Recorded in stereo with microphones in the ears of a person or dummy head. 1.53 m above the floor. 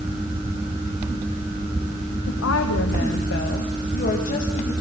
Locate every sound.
2.3 s a woman speaking: 85° left, 1.4 m; by 4.7 s 40° left (ahead or behind), 2.5 m